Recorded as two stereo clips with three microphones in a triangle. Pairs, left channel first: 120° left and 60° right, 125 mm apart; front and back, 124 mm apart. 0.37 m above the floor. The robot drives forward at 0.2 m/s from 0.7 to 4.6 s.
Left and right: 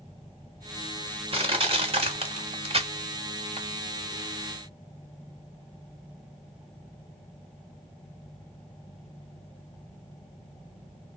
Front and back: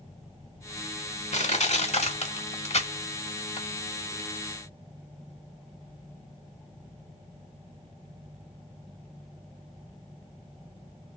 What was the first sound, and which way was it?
Crushing, 20° right.